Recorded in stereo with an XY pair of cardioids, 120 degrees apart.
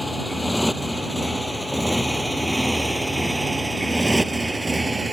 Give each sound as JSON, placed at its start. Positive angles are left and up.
{"t": 0.0, "sound": "a motorcycle", "azimuth_deg": 10}